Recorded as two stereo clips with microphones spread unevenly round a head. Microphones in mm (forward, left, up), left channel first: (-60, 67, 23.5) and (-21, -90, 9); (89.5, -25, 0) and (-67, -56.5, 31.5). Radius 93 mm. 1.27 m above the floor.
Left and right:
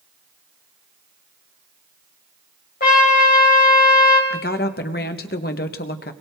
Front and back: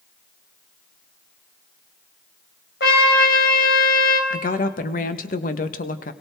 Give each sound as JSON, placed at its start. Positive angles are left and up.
{"t": 2.8, "sound": "a trumpet", "azimuth_deg": 55, "distance_m": 3.0}
{"t": 4.3, "sound": "a woman speaking", "azimuth_deg": 60, "distance_m": 1.1}